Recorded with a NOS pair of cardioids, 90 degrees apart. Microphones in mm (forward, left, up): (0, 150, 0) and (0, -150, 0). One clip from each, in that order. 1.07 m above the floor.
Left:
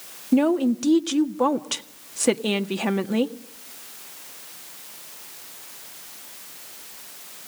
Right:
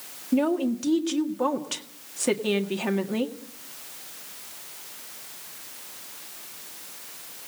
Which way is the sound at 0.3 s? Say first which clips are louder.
Left 4 dB; 25° left.